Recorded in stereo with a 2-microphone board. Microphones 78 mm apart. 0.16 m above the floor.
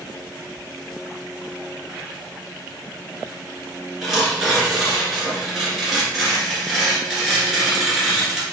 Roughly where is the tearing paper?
Centre.